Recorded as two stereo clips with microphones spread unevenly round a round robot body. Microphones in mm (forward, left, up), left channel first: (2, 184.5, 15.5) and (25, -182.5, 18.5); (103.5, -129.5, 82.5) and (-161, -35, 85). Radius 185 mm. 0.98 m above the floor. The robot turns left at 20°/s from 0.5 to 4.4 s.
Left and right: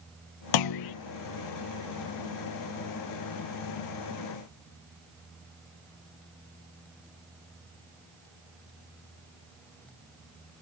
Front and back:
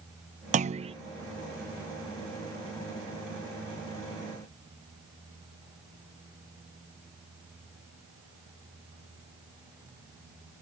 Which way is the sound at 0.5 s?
100° left.